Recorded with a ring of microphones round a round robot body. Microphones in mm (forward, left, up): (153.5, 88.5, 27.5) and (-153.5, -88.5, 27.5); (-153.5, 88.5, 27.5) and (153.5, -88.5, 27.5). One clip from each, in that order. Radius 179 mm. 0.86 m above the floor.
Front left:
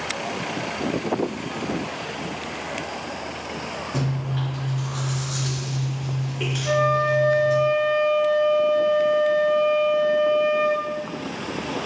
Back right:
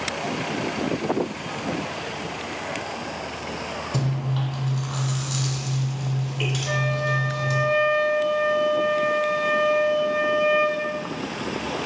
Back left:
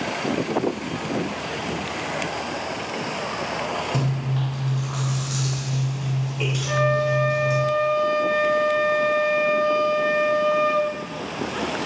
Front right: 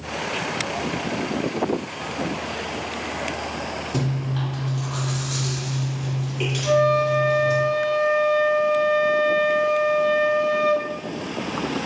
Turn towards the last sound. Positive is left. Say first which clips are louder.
# front left 7 dB, front right 4 dB
turn(degrees=-60)